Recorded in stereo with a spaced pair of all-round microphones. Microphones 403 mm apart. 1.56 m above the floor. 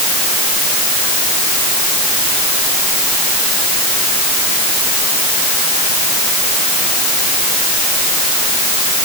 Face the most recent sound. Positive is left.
No sound to turn to.